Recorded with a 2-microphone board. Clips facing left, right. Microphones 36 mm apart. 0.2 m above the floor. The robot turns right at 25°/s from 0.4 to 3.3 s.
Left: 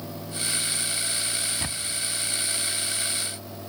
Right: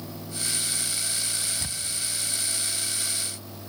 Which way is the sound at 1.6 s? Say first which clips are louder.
Left 3 dB; 40° left (ahead or behind).